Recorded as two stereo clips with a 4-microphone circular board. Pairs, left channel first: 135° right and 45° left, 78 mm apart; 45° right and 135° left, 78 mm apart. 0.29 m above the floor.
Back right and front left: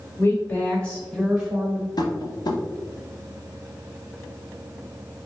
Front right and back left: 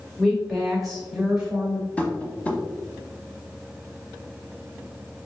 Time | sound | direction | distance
0.2 | a woman speaking | 125° right | 1.4 m
2.0 | tapping | 115° right | 0.7 m